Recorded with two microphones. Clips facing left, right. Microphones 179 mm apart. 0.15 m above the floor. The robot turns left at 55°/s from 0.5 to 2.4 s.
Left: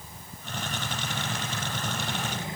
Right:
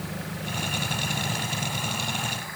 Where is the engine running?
95° right; by 2.6 s 160° left.